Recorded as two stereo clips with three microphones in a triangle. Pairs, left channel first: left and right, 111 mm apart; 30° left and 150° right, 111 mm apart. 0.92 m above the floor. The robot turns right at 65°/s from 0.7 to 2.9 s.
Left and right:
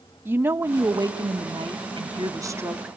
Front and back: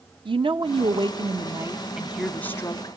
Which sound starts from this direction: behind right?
A woman speaking, at 0.2 s.